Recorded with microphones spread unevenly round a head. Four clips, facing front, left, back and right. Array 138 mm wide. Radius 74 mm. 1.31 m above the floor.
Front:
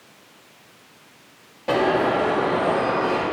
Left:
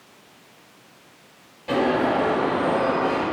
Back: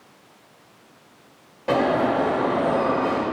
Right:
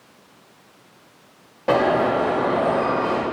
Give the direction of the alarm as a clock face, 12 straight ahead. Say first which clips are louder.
Right 3 dB, even; 3 o'clock.